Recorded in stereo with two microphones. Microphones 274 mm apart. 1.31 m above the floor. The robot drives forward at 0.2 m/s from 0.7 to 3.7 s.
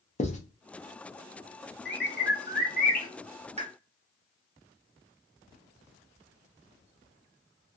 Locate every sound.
0.2 s writing: 25° left (ahead or behind), 0.7 m
1.9 s a bird: 40° left (ahead or behind), 0.7 m; by 3.1 s 30° left (ahead or behind), 0.8 m
3.6 s a pop: 25° right (ahead or behind), 0.9 m